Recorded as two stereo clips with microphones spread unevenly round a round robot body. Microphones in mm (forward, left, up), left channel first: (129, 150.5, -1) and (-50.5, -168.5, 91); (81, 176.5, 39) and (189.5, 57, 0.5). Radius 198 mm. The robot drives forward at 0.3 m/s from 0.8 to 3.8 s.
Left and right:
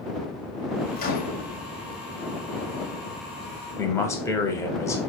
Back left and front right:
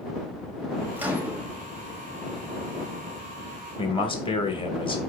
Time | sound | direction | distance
1.0 | a microwave | 15° left | 1.0 m
3.8 | a man speaking | 85° left | 0.8 m